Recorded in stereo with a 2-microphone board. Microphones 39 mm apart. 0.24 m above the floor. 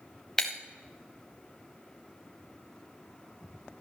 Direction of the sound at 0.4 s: 10° left (ahead or behind).